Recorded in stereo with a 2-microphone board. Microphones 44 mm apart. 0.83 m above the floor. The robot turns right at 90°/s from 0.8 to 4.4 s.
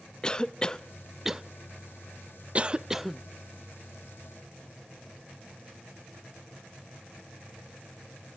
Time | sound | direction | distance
0.2 | a cough | 15° left (ahead or behind) | 0.5 m